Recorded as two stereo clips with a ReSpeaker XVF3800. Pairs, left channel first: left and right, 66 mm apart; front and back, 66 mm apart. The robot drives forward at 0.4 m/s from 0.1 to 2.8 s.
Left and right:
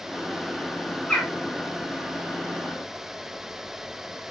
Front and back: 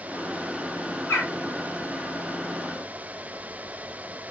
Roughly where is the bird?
Ahead.